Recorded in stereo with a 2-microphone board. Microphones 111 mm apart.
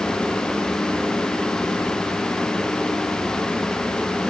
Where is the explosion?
No explosion in this recording.